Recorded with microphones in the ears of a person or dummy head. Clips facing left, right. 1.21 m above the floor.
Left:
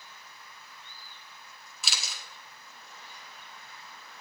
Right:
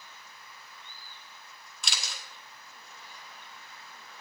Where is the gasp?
No gasp in this recording.